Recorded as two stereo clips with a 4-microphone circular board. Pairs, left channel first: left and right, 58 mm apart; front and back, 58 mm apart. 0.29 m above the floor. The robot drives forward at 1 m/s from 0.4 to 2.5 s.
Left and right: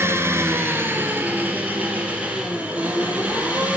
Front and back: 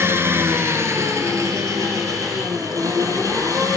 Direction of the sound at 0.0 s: 135° right.